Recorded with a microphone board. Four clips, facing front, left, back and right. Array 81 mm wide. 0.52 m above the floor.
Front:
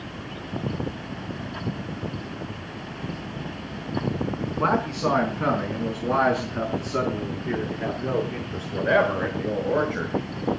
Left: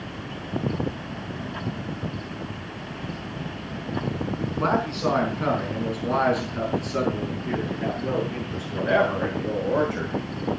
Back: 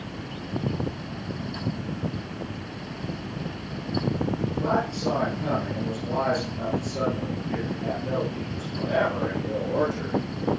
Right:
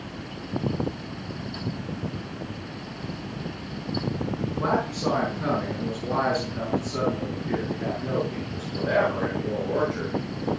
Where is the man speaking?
20° left, 5.5 m; by 10.1 s 15° left, 8.5 m.